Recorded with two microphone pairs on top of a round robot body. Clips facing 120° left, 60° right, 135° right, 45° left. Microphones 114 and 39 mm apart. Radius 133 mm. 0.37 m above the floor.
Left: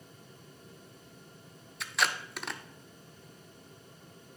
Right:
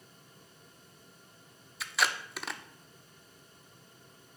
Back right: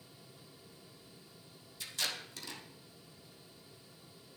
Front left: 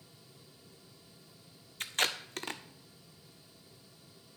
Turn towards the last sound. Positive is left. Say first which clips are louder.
# even, front left 6 dB
turn(degrees=25)